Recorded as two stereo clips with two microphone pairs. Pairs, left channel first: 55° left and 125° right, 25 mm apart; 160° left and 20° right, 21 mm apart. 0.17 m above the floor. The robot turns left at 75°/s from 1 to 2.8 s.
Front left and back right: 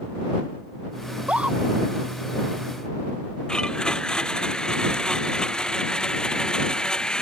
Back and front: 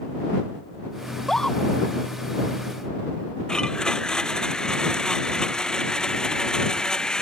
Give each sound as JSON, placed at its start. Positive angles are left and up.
{"t": 1.1, "sound": "a scream", "azimuth_deg": -115}
{"t": 3.5, "sound": "a blender", "azimuth_deg": 110}